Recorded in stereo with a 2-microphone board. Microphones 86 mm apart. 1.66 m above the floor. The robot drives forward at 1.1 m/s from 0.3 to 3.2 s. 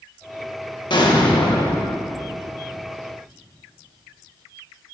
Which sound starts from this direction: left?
An explosion, at 0.9 s.